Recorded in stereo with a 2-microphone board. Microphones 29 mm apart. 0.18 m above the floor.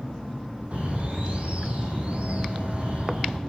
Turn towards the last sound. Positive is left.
turn(degrees=-50)  # may be behind; listen again after turning